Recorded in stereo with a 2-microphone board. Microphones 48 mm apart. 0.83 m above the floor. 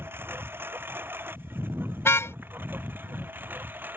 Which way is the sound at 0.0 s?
55° right (ahead or behind).